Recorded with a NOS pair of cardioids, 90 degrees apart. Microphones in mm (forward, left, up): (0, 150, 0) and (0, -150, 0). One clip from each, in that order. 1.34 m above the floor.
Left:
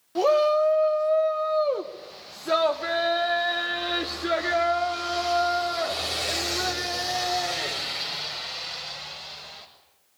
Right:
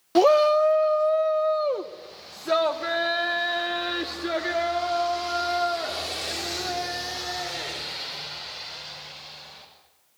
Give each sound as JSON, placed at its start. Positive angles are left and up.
{"t": 0.1, "sound": "a shout", "azimuth_deg": -60, "distance_m": 0.7}